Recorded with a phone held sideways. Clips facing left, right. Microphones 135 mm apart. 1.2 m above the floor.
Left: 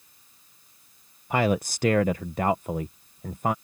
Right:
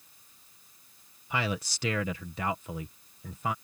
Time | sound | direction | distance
1.3 | a man speaking | 50° left (ahead or behind) | ?